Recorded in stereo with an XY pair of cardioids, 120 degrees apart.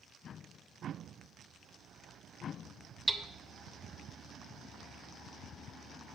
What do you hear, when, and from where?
3.1 s hammering: 10° right, 0.6 m